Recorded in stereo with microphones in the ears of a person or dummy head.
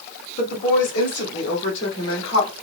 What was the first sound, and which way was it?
A woman speaking, 60° left (ahead or behind).